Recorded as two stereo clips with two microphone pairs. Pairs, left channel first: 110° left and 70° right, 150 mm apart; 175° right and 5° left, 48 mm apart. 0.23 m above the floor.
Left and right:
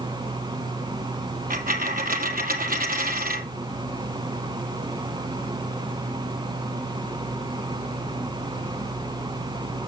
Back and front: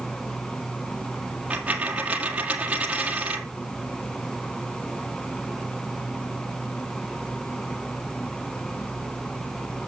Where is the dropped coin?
55° right, 1.8 m.